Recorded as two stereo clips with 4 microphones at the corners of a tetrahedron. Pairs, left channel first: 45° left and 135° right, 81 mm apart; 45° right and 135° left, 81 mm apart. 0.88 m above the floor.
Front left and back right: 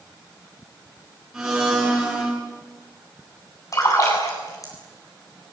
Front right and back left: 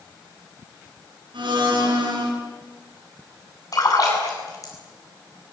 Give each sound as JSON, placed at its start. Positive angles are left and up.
{"t": 1.3, "sound": "a blender", "azimuth_deg": 140, "distance_m": 10.0}
{"t": 3.7, "sound": "a splash", "azimuth_deg": 0, "distance_m": 8.5}